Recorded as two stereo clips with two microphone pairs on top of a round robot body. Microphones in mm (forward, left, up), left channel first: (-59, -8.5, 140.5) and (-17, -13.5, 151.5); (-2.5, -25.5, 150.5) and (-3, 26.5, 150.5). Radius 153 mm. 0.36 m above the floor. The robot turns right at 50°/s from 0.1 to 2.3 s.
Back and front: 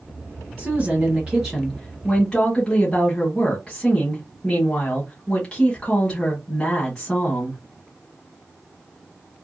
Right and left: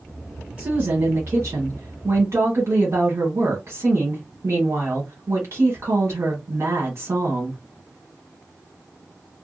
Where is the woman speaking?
25° left, 1.5 m; by 7.6 s 110° left, 1.5 m.